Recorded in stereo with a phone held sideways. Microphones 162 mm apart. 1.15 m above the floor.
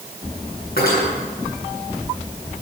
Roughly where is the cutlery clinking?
Left.